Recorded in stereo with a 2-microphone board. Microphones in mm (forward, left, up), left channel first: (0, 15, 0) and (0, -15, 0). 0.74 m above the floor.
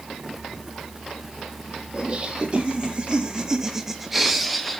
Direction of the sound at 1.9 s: 35° right (ahead or behind).